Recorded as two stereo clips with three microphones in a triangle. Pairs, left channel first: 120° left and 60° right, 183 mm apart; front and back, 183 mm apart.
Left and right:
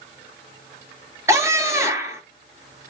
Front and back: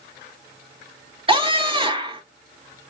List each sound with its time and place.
1.3 s a scream: 130° right, 2.5 m